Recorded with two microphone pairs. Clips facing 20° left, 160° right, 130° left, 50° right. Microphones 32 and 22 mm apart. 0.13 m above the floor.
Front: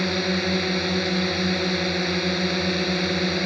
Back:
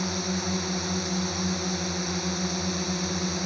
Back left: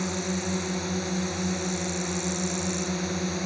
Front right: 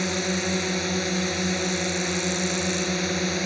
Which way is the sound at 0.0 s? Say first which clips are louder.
Front 6 dB, front right 4 dB; 5° right.